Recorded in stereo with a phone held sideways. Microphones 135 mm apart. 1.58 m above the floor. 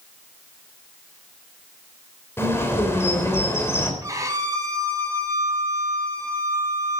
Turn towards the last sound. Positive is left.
turn(degrees=-25)  # may be behind; listen again after turning